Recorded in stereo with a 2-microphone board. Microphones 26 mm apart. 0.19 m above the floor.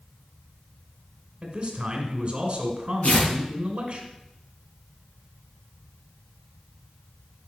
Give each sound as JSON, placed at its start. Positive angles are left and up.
{"t": 1.4, "sound": "a man speaking", "side_deg": -35, "distance_m": 1.9}
{"t": 3.0, "sound": "tearing paper", "side_deg": 50, "distance_m": 4.5}